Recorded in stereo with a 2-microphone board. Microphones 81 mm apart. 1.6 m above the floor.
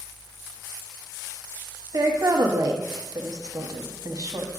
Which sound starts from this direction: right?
A woman speaking, at 1.9 s.